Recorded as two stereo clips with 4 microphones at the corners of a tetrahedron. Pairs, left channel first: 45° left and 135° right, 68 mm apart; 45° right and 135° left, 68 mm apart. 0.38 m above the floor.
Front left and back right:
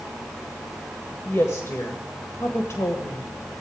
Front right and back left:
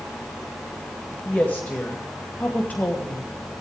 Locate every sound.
1.2 s a woman speaking: 10° left, 1.8 m